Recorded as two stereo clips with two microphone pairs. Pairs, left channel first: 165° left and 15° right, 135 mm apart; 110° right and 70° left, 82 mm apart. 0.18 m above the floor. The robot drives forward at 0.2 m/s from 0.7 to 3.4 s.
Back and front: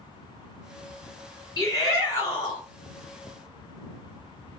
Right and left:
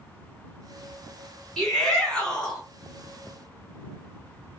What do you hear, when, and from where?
1.6 s a shout: straight behind, 1.8 m